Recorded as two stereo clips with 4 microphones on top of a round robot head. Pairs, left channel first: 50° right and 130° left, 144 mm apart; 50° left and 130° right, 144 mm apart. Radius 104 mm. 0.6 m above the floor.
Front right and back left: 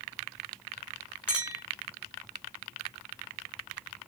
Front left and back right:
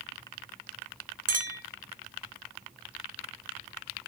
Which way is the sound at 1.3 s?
150° right.